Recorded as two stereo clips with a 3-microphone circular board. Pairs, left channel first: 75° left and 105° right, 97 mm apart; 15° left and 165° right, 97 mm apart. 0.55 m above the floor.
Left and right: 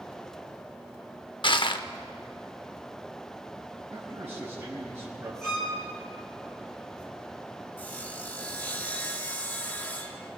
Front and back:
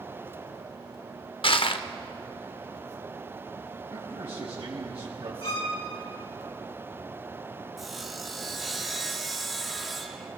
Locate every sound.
1.4 s crushing: 40° left, 0.6 m
3.9 s a man speaking: 165° right, 3 m
5.4 s a violin: 10° right, 3.5 m
7.8 s sawing: 105° left, 1.3 m